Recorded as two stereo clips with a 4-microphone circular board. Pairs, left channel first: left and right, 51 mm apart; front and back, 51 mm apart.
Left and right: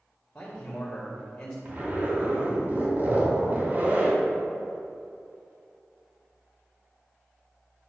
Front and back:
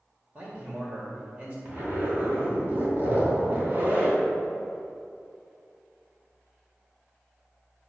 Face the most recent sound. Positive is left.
turn(degrees=-140)